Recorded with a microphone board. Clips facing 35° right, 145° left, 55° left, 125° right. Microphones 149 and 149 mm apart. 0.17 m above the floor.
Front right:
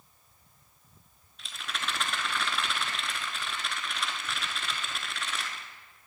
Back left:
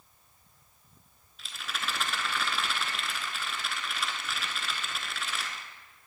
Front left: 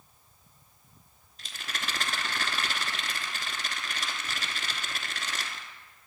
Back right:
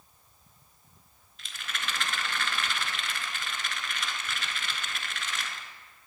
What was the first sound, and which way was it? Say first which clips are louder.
A rattle: even, even; 60° left.